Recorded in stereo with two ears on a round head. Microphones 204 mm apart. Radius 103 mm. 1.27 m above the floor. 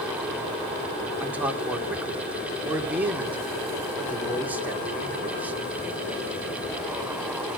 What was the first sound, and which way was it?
A man speaking, 10° right (ahead or behind).